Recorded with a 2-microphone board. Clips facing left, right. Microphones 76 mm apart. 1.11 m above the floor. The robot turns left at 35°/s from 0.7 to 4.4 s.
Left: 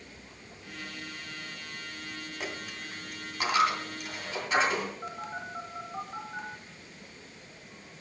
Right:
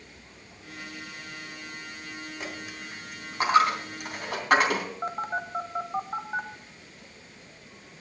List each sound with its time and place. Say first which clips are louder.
2.4 s a dropped coin: right 1 dB; 5° left (ahead or behind), 2.5 m; by 4.8 s 60° right (ahead or behind), 2.5 m
5.0 s a phone buzzing: right 7 dB; 45° right (ahead or behind), 1.1 m